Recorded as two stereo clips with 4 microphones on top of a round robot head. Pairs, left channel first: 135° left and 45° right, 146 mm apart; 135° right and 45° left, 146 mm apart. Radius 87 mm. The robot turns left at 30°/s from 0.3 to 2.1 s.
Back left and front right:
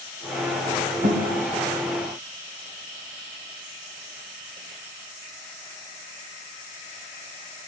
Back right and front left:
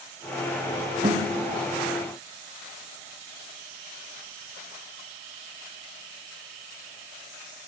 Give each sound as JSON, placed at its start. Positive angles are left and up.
{"t": 1.0, "sound": "a guitar", "azimuth_deg": -10, "distance_m": 1.2}